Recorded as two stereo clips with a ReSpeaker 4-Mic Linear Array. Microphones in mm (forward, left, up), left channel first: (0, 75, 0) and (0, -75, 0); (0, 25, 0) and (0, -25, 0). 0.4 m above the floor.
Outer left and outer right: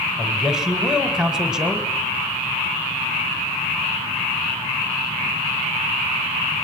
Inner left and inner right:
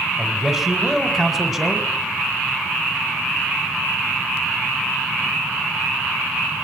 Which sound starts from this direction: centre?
A man speaking, at 0.2 s.